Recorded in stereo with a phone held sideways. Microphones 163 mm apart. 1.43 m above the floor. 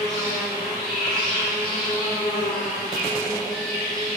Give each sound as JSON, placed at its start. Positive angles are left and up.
{"t": 0.0, "sound": "an insect", "side_deg": 75, "distance_m": 1.8}